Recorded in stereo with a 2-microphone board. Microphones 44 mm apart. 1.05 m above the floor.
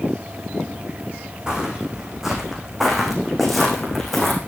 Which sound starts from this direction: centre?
Footsteps, at 1.5 s.